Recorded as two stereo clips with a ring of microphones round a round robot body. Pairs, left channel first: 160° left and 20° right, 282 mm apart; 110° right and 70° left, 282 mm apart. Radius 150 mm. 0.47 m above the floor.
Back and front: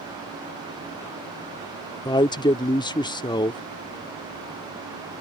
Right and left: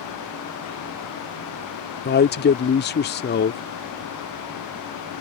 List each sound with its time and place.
2.0 s a man speaking: 135° right